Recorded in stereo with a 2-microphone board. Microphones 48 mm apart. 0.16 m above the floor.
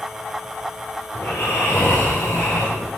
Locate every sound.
1.1 s snoring: 50° left (ahead or behind), 6 m